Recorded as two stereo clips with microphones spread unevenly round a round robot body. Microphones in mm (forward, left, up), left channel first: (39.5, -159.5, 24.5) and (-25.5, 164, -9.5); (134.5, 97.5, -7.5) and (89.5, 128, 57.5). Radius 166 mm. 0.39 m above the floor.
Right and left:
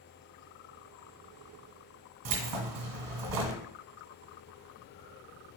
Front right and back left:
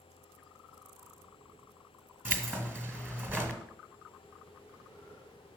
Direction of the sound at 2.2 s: 80° left.